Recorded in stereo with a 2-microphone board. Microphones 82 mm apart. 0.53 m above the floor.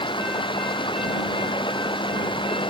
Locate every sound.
0.0 s running water: 90° left